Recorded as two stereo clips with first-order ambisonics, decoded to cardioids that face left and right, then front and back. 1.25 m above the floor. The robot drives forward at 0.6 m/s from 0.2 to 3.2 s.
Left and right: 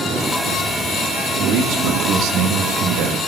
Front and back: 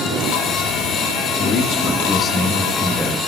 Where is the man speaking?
50° right, 1.8 m; by 3.2 s 85° right, 1.4 m.